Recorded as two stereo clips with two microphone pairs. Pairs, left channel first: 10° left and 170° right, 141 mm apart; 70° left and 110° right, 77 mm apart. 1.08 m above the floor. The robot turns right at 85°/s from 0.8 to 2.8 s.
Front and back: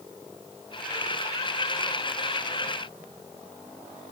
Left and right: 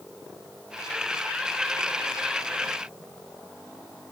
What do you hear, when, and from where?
Only background noise.